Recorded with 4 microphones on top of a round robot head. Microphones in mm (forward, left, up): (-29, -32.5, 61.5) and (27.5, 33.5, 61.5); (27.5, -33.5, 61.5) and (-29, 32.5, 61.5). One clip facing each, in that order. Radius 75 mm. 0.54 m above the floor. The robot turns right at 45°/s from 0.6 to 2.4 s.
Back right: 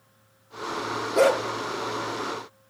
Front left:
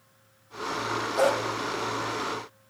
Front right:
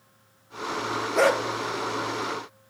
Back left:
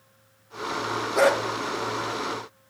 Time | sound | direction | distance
1.1 | a dog barking | 150° right | 4.5 m